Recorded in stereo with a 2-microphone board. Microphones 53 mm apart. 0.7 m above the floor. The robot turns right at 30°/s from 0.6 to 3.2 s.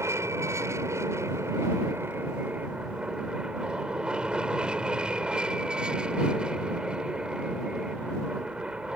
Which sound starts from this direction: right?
An aircraft, at 0.0 s.